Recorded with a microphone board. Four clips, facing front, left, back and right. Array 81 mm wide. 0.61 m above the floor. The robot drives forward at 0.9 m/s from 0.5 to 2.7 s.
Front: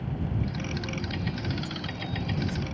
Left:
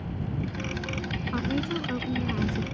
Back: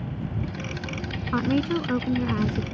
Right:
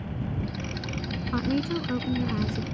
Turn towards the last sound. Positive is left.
turn(degrees=-175)